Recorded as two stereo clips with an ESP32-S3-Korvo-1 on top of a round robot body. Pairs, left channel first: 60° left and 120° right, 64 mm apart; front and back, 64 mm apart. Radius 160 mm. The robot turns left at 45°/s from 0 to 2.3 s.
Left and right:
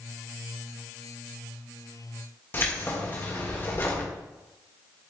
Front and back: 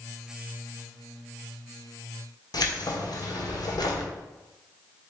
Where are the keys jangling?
5° left, 1.6 m.